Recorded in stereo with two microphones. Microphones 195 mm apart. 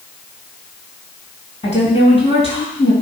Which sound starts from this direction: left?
A woman speaking, at 1.6 s.